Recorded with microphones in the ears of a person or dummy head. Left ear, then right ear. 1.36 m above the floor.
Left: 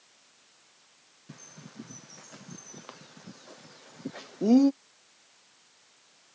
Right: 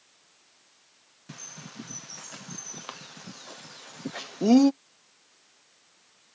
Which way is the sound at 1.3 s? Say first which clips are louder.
Right 7 dB; 40° right (ahead or behind).